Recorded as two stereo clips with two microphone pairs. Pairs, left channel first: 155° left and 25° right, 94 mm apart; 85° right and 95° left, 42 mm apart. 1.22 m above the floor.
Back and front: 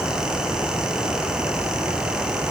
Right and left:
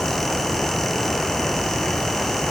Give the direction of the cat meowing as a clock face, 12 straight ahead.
I don't hear a cat meowing.